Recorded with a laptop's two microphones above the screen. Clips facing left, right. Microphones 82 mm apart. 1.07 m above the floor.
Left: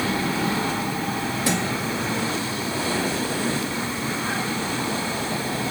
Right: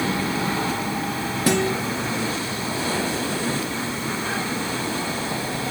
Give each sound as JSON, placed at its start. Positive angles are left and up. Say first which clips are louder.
{"t": 1.5, "sound": "a guitar", "louder": "right 6 dB", "side_deg": -50, "distance_m": 3.0}